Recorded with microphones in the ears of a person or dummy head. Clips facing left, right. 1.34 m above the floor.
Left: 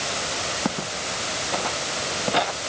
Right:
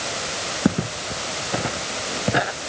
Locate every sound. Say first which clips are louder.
0.7 s footsteps: right 9 dB; 30° right (ahead or behind); by 2.5 s 25° right (ahead or behind)